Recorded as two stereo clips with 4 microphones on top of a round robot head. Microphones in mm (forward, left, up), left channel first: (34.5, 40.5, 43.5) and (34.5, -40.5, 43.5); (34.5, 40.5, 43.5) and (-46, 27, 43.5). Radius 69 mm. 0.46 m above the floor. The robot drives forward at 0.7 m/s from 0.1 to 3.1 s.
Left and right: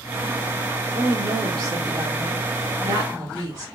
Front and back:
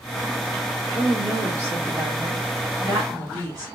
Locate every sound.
0.9 s a woman speaking: 105° right, 2 m; by 3.6 s 140° right, 3 m